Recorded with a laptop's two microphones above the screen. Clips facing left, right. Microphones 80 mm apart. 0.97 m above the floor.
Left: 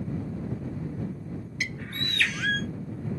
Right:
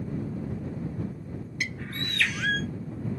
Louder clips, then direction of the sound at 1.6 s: Right 1 dB; centre (ahead or behind).